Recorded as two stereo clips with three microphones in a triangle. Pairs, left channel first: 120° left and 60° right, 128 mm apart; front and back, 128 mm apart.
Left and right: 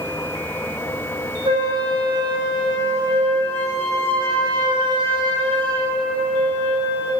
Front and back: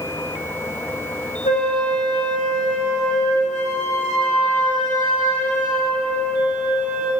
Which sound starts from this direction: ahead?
A flute, at 1.4 s.